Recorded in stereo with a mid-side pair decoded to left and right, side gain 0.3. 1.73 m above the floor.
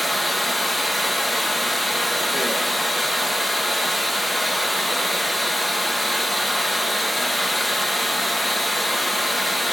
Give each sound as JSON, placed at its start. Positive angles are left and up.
{"t": 0.0, "sound": "running water", "azimuth_deg": 15, "distance_m": 1.5}